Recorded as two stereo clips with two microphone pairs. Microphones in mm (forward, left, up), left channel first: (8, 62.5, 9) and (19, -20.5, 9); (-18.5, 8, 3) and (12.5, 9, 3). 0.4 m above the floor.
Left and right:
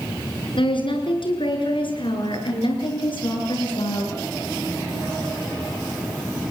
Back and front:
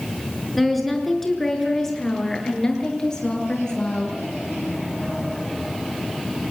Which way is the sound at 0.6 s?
90° left.